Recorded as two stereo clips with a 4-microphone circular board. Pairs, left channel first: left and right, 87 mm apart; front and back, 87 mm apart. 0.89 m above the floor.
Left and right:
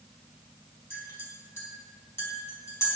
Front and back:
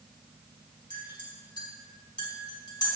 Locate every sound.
0.9 s a clink: 30° left, 4.5 m